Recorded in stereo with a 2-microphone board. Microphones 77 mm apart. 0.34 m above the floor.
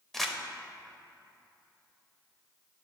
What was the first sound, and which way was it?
Crumpling, 5° left (ahead or behind).